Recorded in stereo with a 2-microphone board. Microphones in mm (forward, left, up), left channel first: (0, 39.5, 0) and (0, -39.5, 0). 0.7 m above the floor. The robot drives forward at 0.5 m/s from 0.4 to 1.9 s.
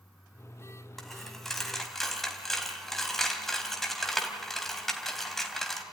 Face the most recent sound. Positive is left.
turn(degrees=5)  # may be behind; listen again after turning